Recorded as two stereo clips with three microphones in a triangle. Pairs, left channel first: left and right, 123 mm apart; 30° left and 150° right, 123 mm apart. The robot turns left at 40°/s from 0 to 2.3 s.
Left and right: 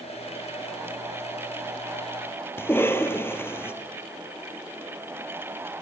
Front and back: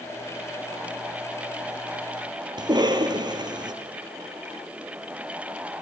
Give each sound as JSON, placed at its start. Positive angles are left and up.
{"t": 2.6, "sound": "a cough", "azimuth_deg": 160, "distance_m": 3.0}